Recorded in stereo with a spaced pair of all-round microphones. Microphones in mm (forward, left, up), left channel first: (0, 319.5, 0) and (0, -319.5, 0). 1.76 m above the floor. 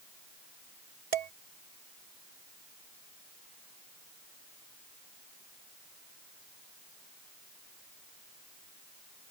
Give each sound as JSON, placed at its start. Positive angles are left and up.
{"t": 1.1, "sound": "dishes clattering", "side_deg": -65}